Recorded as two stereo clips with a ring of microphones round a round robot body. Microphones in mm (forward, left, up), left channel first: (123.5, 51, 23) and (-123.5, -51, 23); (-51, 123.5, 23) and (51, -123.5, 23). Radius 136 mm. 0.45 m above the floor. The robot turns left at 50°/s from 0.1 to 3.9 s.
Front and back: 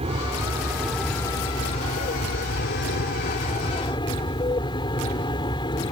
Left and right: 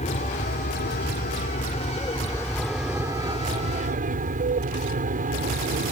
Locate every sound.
0.0 s an aircraft: 155° left; by 5.9 s 35° right